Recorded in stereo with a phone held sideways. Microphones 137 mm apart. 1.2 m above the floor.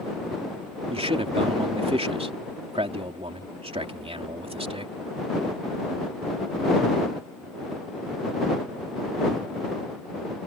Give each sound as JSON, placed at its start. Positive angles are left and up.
{"t": 0.9, "sound": "a man speaking", "side_deg": -45}